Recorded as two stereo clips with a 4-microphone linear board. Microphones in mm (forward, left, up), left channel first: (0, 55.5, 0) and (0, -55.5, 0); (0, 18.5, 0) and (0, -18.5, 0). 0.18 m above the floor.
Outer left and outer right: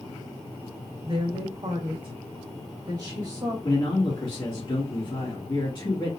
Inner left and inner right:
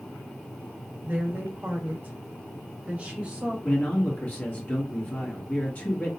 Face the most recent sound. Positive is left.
turn(degrees=45)  # may be behind; listen again after turning